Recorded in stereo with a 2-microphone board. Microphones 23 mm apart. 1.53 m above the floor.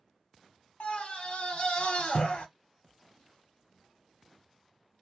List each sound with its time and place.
0.8 s a scream: 55° left (ahead or behind), 1.0 m